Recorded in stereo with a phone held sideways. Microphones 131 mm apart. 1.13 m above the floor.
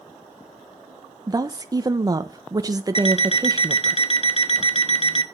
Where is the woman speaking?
30° right (ahead or behind), 0.9 m.